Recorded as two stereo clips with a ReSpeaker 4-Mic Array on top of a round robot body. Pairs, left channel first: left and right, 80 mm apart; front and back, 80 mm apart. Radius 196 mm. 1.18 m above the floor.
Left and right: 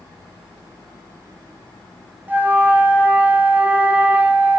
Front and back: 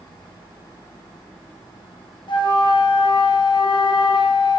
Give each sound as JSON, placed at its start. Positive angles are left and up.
{"t": 2.3, "sound": "a flute", "azimuth_deg": -20, "distance_m": 3.0}